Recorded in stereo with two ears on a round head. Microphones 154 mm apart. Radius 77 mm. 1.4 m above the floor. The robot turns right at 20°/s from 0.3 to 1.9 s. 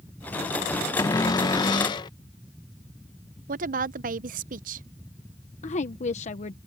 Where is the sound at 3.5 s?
50° right (ahead or behind).